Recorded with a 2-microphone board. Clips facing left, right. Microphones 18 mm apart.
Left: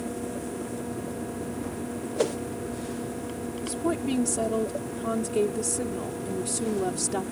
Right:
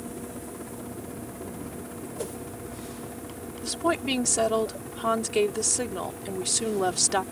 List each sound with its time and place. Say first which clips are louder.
0.0 s a helicopter: left 5 dB; 15° right (ahead or behind); by 7.3 s 30° right (ahead or behind)
2.2 s a whoosh: left 10 dB; 35° left (ahead or behind)
3.6 s a woman speaking: right 2 dB; 45° right (ahead or behind)